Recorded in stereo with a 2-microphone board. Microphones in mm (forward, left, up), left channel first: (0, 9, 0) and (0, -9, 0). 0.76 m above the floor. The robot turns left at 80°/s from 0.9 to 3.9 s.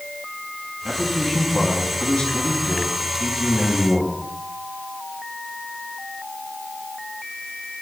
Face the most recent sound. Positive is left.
turn(degrees=-25)